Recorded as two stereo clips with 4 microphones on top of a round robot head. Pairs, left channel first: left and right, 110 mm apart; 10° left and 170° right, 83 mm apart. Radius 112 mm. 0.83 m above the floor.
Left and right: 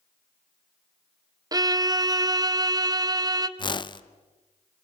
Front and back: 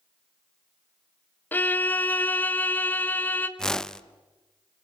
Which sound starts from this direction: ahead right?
A violin, at 1.5 s.